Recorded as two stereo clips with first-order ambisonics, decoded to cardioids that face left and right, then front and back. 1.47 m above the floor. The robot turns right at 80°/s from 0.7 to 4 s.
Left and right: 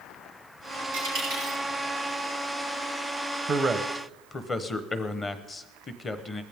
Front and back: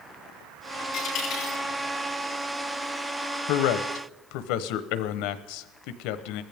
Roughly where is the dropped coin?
Right.